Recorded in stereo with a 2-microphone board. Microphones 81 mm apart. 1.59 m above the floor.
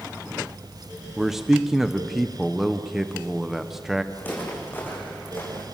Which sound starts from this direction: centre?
A man speaking, at 1.2 s.